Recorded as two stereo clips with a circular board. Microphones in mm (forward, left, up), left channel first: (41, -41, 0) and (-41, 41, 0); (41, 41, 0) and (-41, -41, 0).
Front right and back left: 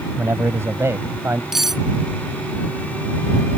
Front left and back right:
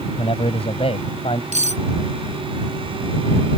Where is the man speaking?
70° left.